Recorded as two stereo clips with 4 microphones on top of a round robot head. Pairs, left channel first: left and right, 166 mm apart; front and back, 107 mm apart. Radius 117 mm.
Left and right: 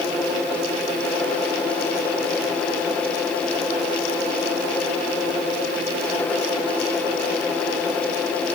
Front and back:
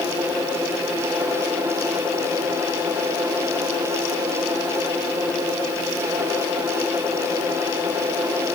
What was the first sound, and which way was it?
Only background noise.